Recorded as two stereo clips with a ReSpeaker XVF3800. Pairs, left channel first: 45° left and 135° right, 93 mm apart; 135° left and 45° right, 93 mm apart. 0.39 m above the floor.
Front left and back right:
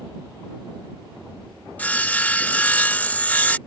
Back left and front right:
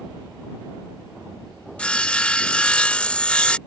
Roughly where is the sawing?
Left.